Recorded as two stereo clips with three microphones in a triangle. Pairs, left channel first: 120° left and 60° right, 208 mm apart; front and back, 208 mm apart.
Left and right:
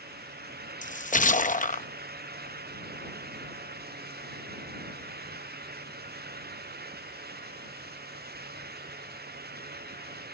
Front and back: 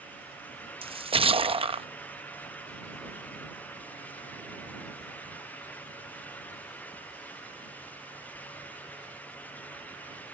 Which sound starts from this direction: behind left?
A splash, at 0.8 s.